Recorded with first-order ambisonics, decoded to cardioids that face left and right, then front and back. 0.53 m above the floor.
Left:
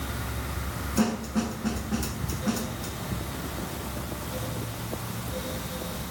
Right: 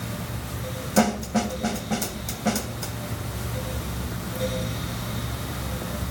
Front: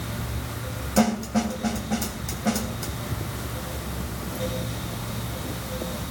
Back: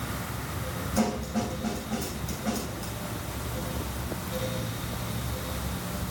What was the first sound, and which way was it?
A snare drum, 65° right.